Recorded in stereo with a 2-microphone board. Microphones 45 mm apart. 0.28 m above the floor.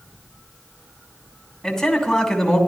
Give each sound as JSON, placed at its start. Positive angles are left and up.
{"t": 1.6, "sound": "a man speaking", "side_deg": 15, "distance_m": 2.5}